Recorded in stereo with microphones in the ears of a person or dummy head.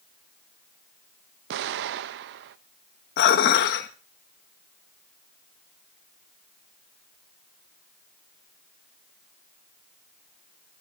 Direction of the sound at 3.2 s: 60° left (ahead or behind).